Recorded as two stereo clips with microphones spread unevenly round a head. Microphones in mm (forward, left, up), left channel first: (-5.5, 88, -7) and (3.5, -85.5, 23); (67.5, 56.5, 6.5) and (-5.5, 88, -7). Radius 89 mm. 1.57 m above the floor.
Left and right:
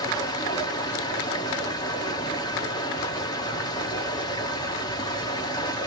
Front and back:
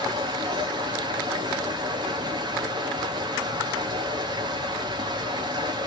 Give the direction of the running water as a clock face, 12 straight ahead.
7 o'clock.